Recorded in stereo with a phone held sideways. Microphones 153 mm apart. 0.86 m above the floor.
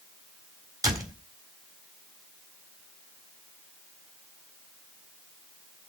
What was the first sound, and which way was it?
A door slam, 20° right (ahead or behind).